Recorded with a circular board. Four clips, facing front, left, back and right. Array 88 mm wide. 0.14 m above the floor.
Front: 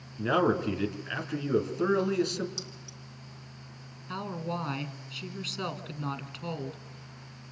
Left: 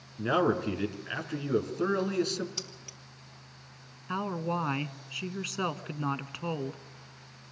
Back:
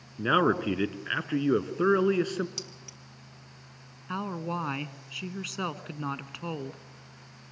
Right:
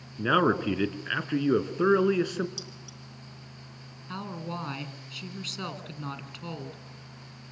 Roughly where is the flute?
No flute in this recording.